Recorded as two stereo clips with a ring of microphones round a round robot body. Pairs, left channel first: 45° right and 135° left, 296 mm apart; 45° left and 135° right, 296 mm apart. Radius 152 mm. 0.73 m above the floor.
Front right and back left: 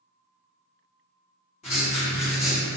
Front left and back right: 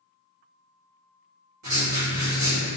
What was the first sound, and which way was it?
Writing, 110° right.